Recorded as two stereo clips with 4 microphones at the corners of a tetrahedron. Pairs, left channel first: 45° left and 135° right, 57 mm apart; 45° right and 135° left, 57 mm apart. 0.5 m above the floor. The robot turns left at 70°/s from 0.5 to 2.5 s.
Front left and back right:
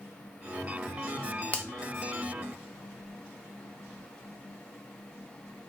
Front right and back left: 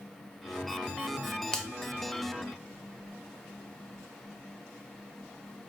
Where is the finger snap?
20° left, 0.6 m; by 1.7 s 10° left, 0.6 m.